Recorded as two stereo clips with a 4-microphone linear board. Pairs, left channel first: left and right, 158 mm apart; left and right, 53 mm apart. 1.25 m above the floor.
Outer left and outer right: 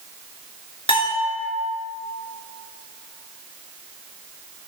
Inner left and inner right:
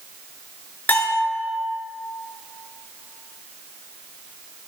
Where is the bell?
35° left (ahead or behind), 2.5 m.